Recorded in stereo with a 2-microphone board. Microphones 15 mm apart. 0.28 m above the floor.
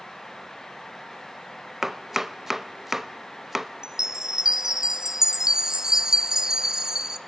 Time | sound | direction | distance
1.8 | chopping | 15° right (ahead or behind) | 0.5 m
3.8 | a chime | 50° right (ahead or behind) | 0.8 m